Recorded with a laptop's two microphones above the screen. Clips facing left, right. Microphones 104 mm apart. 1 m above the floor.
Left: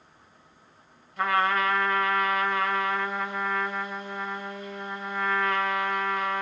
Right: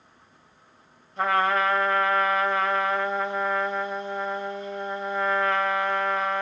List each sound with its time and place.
1.2 s a trumpet: 25° right (ahead or behind), 3 m